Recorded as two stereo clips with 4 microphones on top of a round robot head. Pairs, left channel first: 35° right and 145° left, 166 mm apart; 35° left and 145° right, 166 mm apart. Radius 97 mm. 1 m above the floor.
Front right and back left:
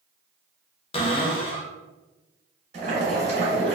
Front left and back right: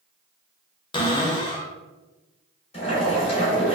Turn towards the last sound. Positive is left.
turn(degrees=95)